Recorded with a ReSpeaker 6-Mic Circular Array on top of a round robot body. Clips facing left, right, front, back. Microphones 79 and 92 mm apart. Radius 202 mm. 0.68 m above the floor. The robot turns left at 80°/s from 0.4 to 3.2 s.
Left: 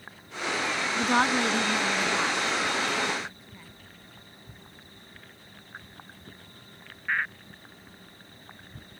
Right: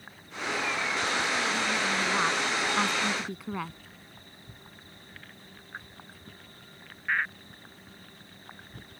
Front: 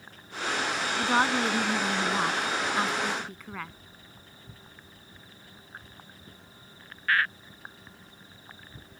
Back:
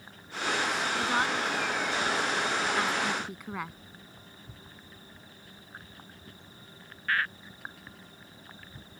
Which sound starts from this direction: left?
A woman speaking, at 1.0 s.